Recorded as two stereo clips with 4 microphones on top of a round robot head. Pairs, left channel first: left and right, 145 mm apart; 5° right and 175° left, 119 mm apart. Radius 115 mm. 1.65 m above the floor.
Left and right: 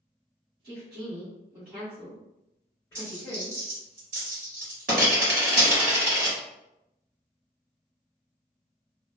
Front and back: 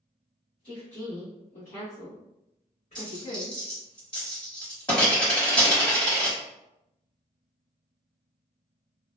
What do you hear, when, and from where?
0.6 s a woman speaking: 65° right, 1.0 m; by 3.6 s 25° left, 1.9 m
3.0 s a dropped coin: 70° right, 1.2 m